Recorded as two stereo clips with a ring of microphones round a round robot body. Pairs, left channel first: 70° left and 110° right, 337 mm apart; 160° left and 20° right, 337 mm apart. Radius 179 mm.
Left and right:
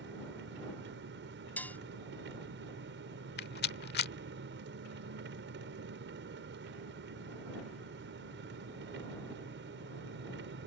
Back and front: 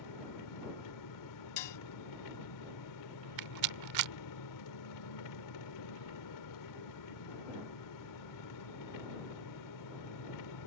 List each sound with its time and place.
0.0 s an engine running: 170° right
1.6 s dishes clattering: 155° left
3.4 s a rattle: 10° left